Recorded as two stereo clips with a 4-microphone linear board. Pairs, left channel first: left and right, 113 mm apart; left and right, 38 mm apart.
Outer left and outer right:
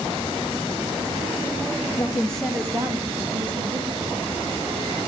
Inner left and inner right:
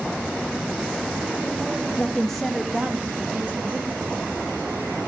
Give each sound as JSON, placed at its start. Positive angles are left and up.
{"t": 2.0, "sound": "a woman speaking", "side_deg": 30, "distance_m": 0.8}